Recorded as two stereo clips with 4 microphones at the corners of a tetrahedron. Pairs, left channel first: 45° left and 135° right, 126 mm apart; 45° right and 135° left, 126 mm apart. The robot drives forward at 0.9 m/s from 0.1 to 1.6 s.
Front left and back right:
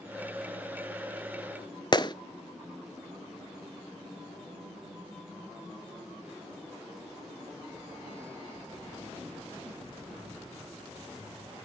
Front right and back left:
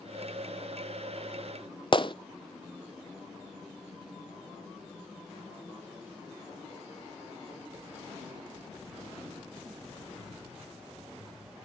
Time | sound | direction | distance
1.9 | a gunshot | 5° right | 0.7 m